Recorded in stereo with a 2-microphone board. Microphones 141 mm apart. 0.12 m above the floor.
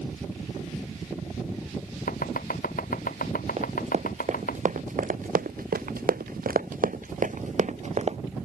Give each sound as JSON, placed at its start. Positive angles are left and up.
{"t": 2.1, "sound": "chopping", "side_deg": 75}
{"t": 3.6, "sound": "running footsteps", "side_deg": -45}